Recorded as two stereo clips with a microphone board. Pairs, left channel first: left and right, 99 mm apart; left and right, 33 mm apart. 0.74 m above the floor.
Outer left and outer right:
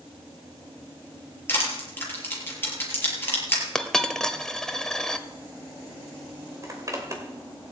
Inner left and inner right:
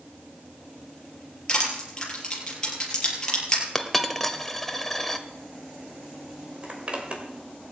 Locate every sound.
1.5 s crushing: 20° left (ahead or behind), 5.5 m
3.8 s a dropped coin: 5° left (ahead or behind), 1.1 m
6.6 s a zipper: 35° right (ahead or behind), 2.5 m